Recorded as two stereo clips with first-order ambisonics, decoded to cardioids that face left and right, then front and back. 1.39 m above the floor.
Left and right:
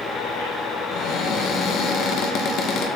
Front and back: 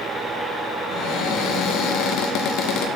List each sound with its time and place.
0.9 s a cupboard door: 40° left, 1.2 m